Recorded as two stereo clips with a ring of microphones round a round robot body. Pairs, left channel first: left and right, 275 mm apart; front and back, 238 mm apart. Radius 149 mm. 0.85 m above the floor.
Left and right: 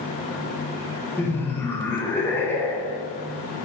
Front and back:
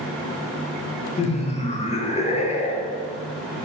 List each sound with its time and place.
1.2 s laughter: 15° left, 0.6 m